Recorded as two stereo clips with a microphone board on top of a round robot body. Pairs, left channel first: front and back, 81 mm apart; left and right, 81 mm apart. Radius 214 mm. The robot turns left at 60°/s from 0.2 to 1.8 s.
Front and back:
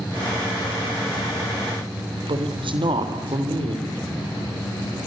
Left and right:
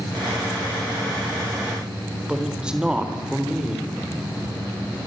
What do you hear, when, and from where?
2.3 s a man speaking: 170° right, 3 m